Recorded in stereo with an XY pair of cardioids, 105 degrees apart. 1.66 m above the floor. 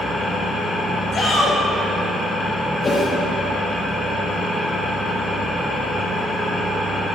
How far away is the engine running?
About 1.8 m.